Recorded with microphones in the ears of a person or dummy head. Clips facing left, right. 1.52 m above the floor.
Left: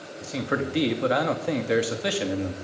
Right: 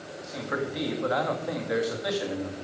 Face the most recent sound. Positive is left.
turn(degrees=45)  # may be behind; listen again after turning